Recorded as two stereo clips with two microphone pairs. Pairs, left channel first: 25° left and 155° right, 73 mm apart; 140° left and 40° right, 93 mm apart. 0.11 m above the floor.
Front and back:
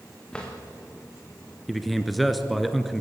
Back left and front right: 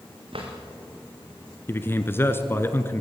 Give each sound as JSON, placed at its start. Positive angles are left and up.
{"t": 0.3, "sound": "a drawer", "azimuth_deg": -55, "distance_m": 5.0}
{"t": 1.7, "sound": "a man speaking", "azimuth_deg": 120, "distance_m": 1.4}